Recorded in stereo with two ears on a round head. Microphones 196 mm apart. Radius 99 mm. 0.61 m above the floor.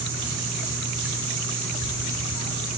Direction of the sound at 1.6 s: 65° right (ahead or behind).